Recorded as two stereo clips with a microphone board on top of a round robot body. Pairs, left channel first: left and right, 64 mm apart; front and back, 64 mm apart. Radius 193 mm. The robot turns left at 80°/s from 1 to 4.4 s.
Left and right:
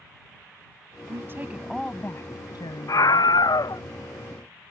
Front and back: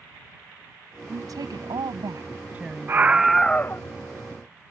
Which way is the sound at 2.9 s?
125° left.